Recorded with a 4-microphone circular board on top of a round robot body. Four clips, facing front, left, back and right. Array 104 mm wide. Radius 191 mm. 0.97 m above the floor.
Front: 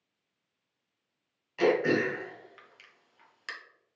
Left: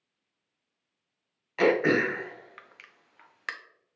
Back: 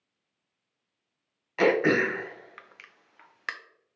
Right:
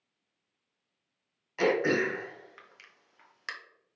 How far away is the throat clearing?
About 0.8 m.